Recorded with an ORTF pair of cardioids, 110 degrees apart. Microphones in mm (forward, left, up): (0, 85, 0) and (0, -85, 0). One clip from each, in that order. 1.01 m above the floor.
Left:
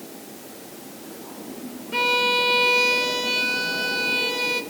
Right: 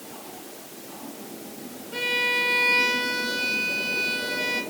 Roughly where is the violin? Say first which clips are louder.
Left 4 dB; ahead left.